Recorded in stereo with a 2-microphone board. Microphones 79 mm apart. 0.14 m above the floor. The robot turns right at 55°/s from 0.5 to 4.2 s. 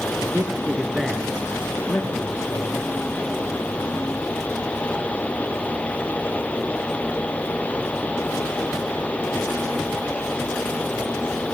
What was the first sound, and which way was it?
A man speaking, 35° right.